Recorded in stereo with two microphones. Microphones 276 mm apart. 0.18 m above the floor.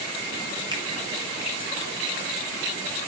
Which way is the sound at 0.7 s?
15° right (ahead or behind).